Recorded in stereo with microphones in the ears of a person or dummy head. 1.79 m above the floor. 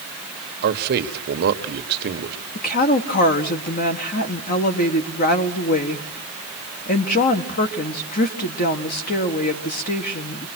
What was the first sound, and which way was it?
A man speaking, 55° right (ahead or behind).